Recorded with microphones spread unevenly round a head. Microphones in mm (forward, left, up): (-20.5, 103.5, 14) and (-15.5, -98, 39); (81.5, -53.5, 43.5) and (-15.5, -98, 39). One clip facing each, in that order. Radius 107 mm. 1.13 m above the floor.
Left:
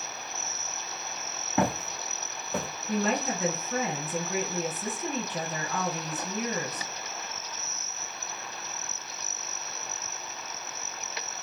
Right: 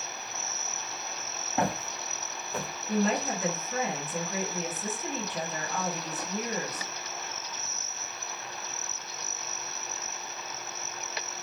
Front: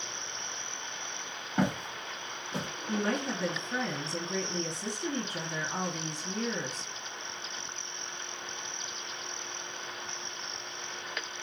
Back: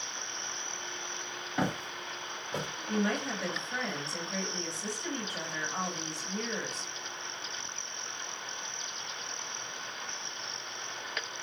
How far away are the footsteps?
About 1.4 m.